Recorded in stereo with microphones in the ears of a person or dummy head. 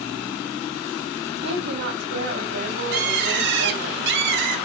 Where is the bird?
65° right (ahead or behind), 2 m.